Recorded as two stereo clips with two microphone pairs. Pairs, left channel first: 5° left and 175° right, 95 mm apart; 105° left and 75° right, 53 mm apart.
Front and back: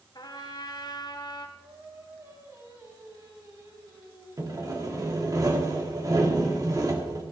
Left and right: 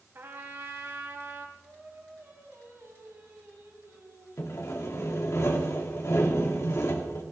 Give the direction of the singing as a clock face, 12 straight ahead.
4 o'clock.